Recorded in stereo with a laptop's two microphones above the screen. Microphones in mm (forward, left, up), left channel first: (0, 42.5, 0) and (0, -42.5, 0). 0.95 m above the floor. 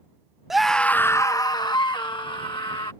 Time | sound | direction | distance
0.5 | a scream | 5° right (ahead or behind) | ?